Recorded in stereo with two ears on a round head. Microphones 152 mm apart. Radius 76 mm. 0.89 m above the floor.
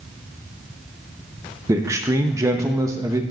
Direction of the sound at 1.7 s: 15° right (ahead or behind).